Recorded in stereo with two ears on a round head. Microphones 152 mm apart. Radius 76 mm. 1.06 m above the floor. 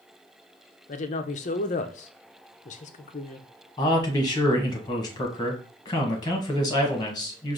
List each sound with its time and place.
0.9 s a woman speaking: 45° left (ahead or behind), 0.6 m
3.8 s a man speaking: 25° left (ahead or behind), 1.5 m